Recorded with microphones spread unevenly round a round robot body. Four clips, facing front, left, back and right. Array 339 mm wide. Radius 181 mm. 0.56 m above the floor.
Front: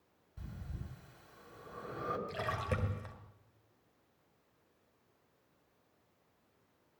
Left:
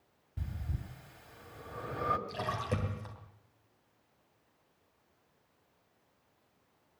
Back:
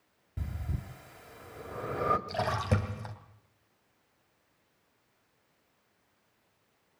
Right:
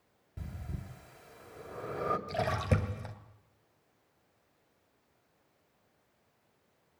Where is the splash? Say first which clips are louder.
Right 4 dB, back 7 dB; 125° right, 3 m.